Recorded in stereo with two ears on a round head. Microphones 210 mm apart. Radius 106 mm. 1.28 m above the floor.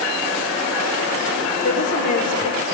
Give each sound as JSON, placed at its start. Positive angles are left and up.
{"t": 1.6, "sound": "a woman speaking", "side_deg": 30, "distance_m": 1.3}